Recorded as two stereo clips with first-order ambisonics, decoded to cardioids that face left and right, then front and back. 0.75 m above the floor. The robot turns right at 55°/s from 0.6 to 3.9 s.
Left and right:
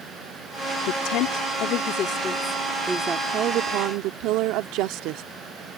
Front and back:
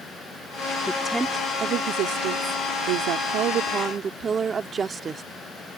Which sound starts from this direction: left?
A woman speaking, at 0.9 s.